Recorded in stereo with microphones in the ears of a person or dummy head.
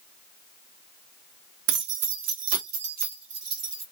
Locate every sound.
1.7 s keys jangling: 60° right (ahead or behind), 0.6 m